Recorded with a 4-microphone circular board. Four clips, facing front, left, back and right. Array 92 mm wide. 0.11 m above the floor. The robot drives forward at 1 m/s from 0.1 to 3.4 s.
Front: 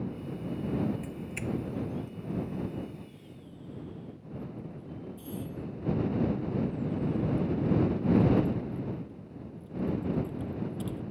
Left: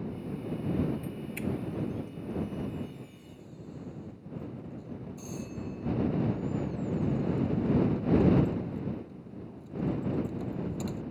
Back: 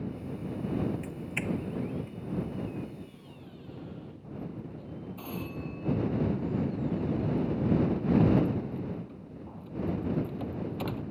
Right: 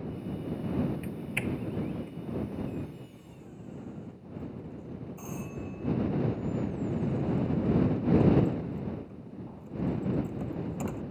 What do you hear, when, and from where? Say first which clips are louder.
1.0 s a doorbell: right 1 dB, back 2 dB; 120° right; by 11.0 s 150° right